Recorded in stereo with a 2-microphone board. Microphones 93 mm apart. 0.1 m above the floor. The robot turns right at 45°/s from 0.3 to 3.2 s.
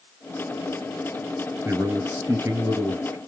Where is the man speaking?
135° right, 1.8 m; by 3.2 s 65° right, 1.8 m.